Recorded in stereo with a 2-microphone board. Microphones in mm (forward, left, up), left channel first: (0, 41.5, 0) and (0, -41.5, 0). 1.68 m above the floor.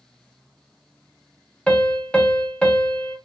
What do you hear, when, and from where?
1.7 s a piano: 15° left (ahead or behind), 1.0 m